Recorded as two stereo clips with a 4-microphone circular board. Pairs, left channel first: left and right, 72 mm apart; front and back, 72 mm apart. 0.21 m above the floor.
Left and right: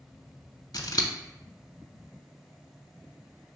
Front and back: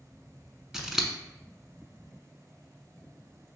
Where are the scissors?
95° left, 0.6 m.